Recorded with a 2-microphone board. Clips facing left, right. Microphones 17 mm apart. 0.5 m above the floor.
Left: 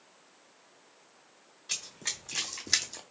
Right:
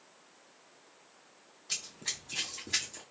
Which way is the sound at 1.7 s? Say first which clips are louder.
Left 2 dB; 75° left (ahead or behind).